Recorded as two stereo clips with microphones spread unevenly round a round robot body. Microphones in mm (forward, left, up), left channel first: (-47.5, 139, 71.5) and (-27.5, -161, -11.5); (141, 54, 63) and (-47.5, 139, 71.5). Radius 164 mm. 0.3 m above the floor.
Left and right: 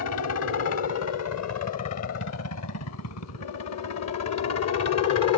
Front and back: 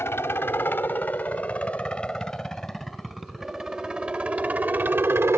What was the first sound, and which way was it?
A helicopter, 50° left.